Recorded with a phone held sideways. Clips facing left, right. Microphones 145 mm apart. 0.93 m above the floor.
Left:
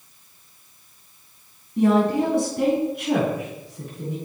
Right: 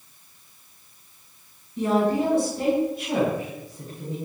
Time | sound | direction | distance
1.8 | a woman speaking | 55° left (ahead or behind) | 7 m